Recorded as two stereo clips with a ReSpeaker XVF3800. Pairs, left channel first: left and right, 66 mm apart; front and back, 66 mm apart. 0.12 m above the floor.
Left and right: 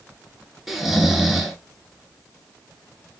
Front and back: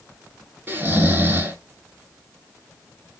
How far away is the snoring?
About 0.6 m.